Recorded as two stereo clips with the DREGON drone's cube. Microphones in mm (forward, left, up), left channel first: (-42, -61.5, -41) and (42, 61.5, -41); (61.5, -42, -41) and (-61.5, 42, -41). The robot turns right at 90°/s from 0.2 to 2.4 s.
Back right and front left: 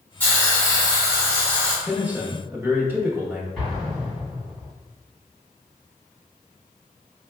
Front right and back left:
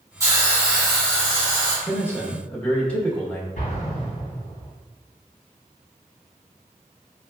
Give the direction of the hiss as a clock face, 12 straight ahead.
6 o'clock.